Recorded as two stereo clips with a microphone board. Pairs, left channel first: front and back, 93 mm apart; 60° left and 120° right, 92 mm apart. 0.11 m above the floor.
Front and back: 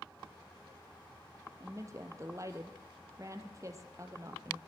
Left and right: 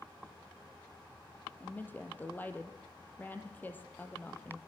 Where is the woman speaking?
130° left, 3 m.